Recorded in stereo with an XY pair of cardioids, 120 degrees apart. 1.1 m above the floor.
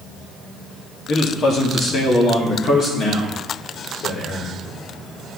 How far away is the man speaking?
About 2 m.